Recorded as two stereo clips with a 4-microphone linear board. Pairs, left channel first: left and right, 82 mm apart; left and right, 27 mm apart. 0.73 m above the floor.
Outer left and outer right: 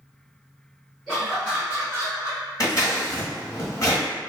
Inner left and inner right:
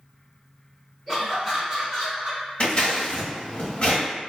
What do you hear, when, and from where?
1.1 s laughter: 5° right (ahead or behind), 1.4 m; by 2.4 s 40° right (ahead or behind), 1.4 m
2.6 s scissors: 45° left (ahead or behind), 0.9 m